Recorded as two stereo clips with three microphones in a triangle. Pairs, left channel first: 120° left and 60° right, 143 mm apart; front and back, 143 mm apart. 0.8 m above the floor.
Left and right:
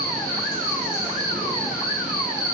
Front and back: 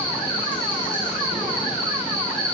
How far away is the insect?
About 3 m.